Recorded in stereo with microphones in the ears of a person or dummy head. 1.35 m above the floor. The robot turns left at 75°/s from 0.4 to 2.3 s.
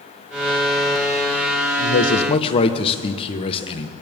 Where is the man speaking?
70° left, 0.9 m; by 3.9 s 35° left, 0.9 m.